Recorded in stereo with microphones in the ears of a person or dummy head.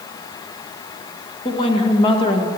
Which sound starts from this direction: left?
A woman speaking, at 1.4 s.